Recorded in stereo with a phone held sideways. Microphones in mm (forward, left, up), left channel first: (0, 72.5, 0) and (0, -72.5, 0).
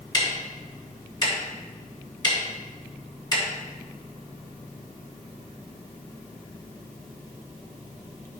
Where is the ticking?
30° left (ahead or behind), 2.5 m.